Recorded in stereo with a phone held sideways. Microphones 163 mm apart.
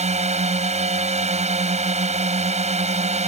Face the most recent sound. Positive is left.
turn(degrees=-45)  # may be behind; listen again after turning